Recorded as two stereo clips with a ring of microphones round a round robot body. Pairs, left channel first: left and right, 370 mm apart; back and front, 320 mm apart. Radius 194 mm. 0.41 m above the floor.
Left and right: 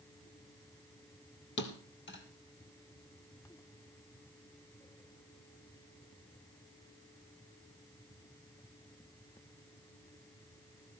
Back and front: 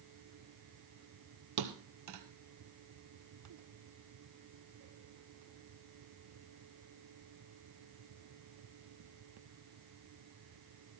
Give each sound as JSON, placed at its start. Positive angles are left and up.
{"t": 1.6, "sound": "a thud", "azimuth_deg": 30, "distance_m": 1.9}